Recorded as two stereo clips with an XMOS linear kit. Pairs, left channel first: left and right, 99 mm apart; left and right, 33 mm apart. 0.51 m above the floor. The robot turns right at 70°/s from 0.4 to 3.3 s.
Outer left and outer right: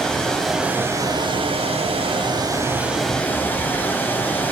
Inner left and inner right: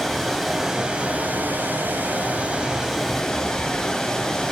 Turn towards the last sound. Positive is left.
turn(degrees=20)